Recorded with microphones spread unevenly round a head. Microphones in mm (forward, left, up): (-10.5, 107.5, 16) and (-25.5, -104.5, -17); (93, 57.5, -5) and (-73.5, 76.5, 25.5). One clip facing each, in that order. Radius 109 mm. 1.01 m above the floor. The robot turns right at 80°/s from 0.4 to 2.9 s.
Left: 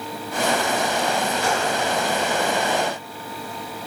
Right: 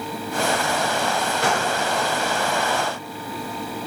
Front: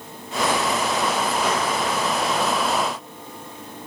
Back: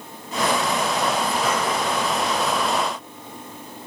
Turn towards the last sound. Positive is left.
turn(degrees=25)